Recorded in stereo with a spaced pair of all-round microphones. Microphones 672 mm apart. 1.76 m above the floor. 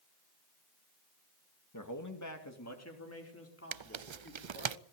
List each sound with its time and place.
1.7 s a man speaking: 30° left (ahead or behind), 2 m; by 4.7 s 20° left (ahead or behind), 5.5 m
3.7 s tearing paper: 50° right (ahead or behind), 0.5 m